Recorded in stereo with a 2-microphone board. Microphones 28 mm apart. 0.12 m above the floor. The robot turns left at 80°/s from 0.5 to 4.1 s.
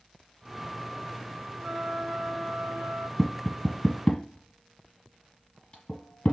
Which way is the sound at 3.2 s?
15° left (ahead or behind).